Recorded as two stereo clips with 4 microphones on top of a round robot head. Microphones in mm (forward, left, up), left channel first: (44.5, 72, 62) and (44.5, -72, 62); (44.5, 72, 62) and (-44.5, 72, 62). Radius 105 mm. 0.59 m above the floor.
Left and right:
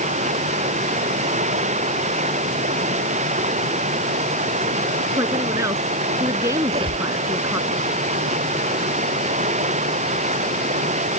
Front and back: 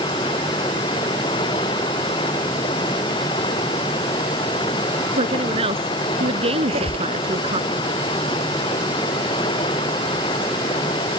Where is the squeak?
150° right.